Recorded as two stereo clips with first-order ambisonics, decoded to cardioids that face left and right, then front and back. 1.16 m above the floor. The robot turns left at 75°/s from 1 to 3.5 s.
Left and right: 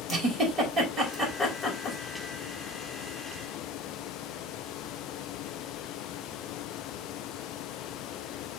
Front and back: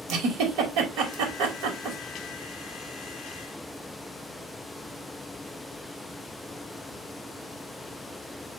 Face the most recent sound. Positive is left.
turn(degrees=20)